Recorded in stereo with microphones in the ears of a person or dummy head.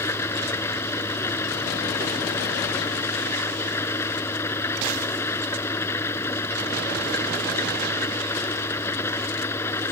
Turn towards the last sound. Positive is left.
turn(degrees=15)  # may be behind; listen again after turning